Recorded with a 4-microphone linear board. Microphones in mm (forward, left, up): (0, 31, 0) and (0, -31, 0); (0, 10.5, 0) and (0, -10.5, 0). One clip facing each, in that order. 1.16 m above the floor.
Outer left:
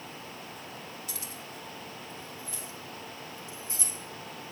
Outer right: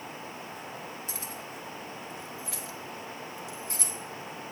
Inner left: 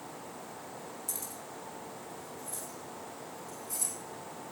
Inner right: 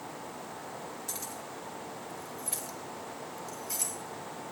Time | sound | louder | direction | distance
1.1 | keys jangling | outer right 3 dB, inner right 3 dB | 30° right (ahead or behind) | 1.9 m